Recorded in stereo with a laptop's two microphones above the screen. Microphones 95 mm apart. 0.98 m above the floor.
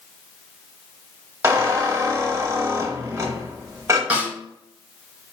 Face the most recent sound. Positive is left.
turn(degrees=-15)  # may be behind; listen again after turning